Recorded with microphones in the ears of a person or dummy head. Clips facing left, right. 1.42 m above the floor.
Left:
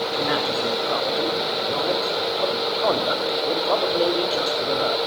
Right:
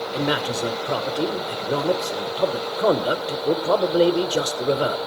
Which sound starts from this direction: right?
A man speaking, at 0.1 s.